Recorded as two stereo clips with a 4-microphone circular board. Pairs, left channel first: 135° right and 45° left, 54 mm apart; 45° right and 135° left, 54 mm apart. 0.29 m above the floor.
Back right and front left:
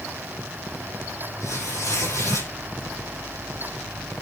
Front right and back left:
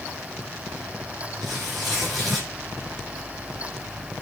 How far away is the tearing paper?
About 8 m.